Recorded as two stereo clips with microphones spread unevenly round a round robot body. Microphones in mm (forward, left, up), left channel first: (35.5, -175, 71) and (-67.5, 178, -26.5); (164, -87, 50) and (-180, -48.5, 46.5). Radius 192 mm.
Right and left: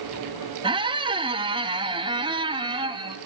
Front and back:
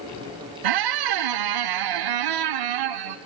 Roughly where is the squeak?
Behind.